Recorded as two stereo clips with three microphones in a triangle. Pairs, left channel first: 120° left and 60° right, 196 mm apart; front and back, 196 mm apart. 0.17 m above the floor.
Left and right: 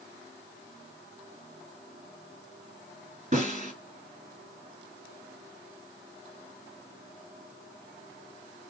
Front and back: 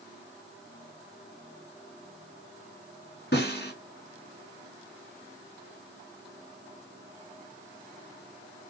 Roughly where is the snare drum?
Ahead.